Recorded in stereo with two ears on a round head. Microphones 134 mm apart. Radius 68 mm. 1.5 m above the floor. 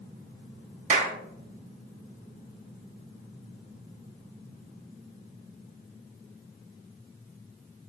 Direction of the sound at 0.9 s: 50° right (ahead or behind).